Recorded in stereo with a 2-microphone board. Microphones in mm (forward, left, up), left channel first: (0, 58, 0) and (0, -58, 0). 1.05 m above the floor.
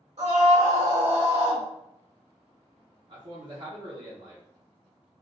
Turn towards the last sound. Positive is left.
turn(degrees=-55)  # may be behind; listen again after turning